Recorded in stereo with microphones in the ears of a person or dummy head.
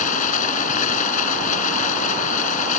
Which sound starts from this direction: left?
Running water, at 0.0 s.